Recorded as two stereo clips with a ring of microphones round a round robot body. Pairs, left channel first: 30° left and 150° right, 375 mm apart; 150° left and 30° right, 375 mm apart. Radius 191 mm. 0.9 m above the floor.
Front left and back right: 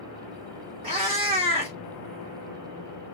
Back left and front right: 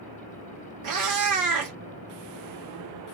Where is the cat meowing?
75° right, 1.1 m.